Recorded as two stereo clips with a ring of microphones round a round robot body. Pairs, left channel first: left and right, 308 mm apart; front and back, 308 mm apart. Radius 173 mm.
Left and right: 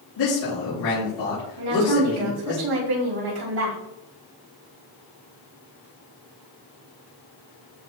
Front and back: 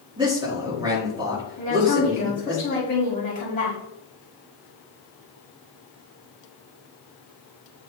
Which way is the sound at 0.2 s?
105° left.